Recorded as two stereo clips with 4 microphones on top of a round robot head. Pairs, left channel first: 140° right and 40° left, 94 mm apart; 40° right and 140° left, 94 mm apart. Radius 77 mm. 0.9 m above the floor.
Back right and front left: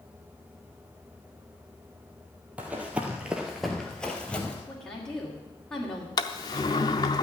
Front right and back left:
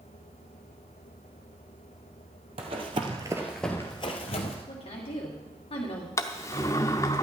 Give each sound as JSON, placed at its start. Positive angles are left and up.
{"t": 2.6, "sound": "running footsteps", "azimuth_deg": 115, "distance_m": 1.4}
{"t": 4.7, "sound": "a woman speaking", "azimuth_deg": -65, "distance_m": 2.5}
{"t": 6.2, "sound": "a sliding door", "azimuth_deg": -100, "distance_m": 0.5}